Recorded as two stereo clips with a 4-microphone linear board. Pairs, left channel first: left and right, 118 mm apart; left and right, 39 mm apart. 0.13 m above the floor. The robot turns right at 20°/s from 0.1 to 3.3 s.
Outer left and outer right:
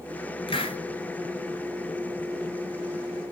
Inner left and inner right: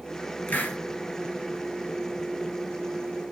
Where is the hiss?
50° left (ahead or behind), 2 m.